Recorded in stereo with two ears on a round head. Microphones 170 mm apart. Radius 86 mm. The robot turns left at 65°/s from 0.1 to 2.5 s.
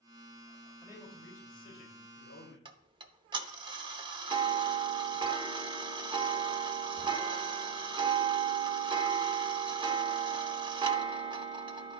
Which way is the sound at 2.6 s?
25° right (ahead or behind).